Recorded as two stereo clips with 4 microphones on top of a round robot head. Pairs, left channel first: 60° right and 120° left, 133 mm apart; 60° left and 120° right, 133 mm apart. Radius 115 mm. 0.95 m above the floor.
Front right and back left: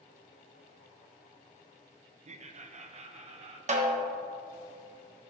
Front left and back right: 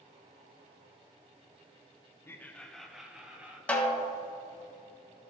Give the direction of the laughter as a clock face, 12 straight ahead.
8 o'clock.